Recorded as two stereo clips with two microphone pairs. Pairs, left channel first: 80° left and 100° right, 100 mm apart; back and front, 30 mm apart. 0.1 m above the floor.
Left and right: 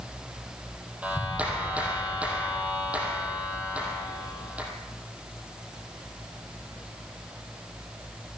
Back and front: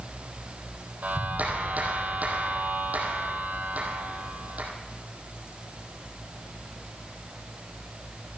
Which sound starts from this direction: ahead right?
A clap, at 1.0 s.